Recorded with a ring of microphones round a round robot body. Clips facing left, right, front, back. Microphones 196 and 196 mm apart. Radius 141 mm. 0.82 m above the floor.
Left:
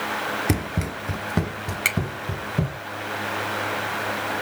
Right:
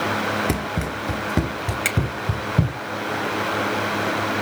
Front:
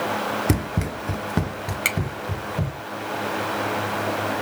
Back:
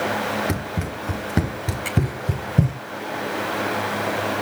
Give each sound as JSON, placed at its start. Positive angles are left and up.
{"t": 0.5, "sound": "running footsteps", "azimuth_deg": 10, "distance_m": 0.8}
{"t": 1.9, "sound": "a finger snap", "azimuth_deg": -5, "distance_m": 2.5}